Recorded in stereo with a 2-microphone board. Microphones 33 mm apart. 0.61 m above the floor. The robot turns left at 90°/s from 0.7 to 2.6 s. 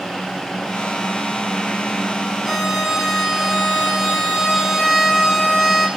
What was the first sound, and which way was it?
A violin, 10° left (ahead or behind).